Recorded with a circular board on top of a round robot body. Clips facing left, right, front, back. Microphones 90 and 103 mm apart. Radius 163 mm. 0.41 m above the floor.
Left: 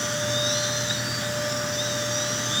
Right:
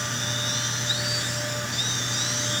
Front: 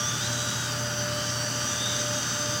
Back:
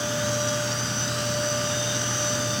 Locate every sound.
Only background noise.